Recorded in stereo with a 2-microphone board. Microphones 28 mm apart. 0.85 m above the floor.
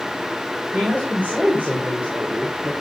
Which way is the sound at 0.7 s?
80° right.